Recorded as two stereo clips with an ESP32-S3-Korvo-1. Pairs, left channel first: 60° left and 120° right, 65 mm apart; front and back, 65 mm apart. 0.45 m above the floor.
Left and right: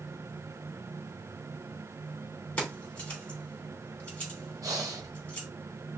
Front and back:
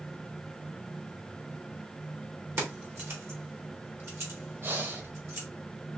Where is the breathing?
130° right, 1.2 m.